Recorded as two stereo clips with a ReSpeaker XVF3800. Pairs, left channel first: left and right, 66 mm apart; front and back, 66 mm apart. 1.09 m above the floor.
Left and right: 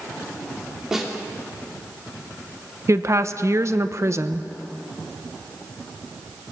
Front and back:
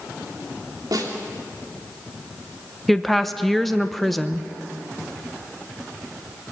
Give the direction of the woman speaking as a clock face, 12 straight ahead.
3 o'clock.